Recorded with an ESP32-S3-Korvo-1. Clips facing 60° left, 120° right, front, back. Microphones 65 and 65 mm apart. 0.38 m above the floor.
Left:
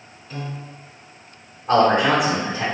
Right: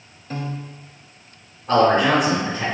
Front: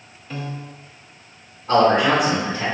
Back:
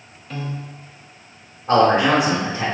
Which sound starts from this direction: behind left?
A man speaking, at 1.7 s.